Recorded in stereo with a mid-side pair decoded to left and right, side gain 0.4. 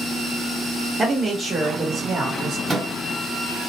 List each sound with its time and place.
1.0 s a man speaking: 30° right, 1.3 m; by 2.6 s 65° right, 1.2 m
2.7 s a microwave: 35° right, 1.4 m